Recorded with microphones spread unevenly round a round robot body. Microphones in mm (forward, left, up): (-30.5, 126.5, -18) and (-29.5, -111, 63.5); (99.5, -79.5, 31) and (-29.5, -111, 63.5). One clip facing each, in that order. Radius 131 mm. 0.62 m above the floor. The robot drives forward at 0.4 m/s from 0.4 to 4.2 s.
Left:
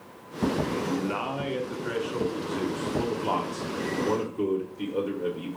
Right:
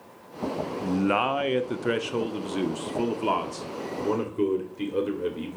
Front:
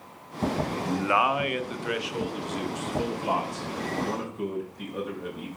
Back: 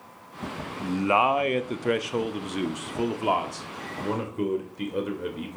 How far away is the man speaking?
About 0.8 m.